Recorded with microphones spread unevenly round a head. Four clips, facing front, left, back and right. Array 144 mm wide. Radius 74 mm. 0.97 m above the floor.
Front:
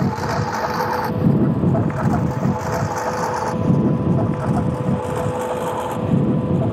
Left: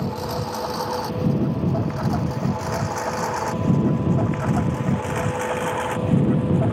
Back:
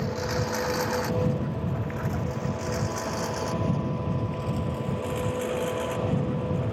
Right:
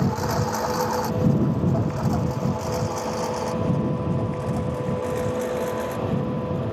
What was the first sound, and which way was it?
A lawn mower, 10° right.